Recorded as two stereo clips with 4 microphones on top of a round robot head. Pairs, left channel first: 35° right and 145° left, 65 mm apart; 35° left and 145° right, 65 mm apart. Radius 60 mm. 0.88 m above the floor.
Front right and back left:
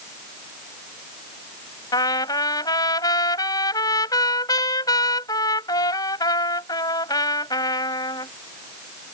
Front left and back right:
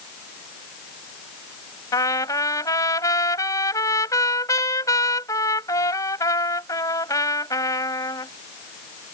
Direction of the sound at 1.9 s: 5° right.